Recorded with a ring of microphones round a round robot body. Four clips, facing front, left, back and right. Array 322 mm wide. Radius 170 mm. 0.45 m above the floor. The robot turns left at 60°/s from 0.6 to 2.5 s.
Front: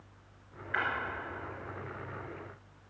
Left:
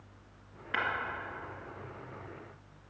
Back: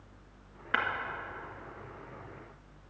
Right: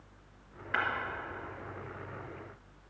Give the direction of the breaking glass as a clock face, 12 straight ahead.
6 o'clock.